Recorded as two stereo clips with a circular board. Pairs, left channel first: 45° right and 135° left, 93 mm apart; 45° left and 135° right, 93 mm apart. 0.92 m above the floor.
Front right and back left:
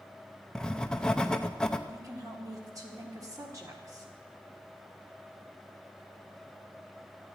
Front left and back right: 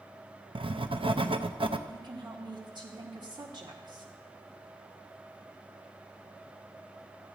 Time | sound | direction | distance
0.6 | writing | 125° right | 0.6 m
1.9 | a woman speaking | 175° right | 1.9 m